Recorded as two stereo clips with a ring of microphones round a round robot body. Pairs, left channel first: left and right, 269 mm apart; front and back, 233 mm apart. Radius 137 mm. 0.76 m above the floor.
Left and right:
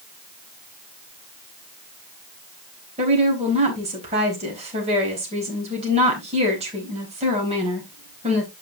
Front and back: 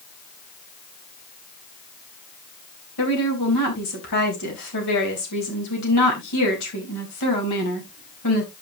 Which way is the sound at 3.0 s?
20° right.